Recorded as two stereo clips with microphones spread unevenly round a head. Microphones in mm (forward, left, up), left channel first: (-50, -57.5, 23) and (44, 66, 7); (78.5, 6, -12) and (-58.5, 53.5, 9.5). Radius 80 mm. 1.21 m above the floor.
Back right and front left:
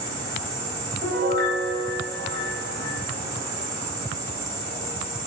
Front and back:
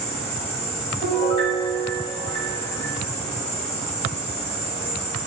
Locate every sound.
0.0 s an insect: 10° left, 1.7 m
1.0 s a piano: 30° left, 1.1 m